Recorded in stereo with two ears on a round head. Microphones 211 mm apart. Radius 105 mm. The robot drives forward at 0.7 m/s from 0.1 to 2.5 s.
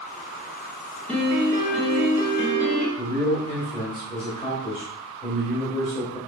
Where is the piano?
5° left (ahead or behind), 1.7 m.